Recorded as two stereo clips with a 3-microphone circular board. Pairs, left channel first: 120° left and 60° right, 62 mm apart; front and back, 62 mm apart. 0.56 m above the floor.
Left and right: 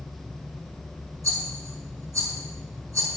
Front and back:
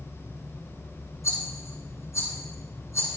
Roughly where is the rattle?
Ahead right.